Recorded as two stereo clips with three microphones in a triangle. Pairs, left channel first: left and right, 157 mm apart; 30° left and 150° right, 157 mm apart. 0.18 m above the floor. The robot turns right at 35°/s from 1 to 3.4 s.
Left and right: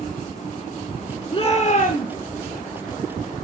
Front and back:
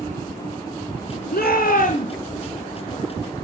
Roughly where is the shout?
Ahead left.